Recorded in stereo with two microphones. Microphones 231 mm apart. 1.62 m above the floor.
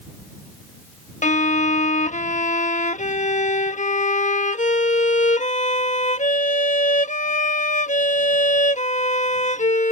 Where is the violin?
35° left (ahead or behind).